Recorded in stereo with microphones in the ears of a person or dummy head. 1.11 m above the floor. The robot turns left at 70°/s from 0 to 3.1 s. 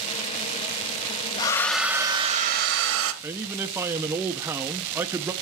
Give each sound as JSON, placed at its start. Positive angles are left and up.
{"t": 1.4, "sound": "a hair dryer", "azimuth_deg": 25, "distance_m": 1.0}
{"t": 3.2, "sound": "a man speaking", "side_deg": -15, "distance_m": 0.5}